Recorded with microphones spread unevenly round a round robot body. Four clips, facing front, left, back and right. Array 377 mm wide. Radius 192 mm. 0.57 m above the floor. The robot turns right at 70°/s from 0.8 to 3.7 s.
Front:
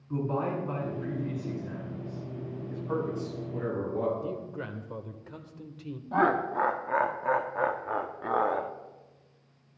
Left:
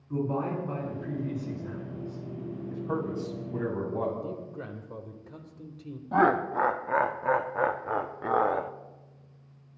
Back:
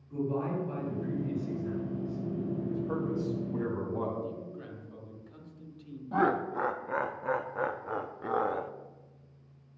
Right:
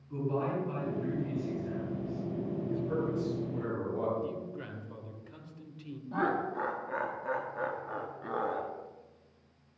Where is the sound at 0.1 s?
30° left, 6.5 m; by 2.2 s 130° left, 6.5 m.